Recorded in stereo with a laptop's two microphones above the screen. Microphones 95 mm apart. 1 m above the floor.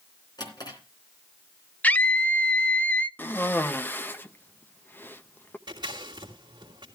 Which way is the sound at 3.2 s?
20° left (ahead or behind).